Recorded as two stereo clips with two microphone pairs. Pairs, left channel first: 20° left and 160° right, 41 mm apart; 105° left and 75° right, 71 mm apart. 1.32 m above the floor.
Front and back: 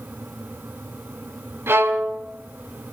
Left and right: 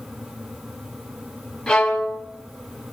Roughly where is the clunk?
No clunk in this recording.